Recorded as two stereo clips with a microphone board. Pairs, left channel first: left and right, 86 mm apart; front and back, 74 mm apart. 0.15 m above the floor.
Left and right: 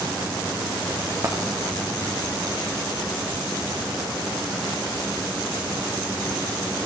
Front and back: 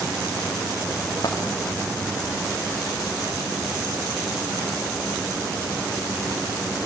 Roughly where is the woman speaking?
No woman speaking in this recording.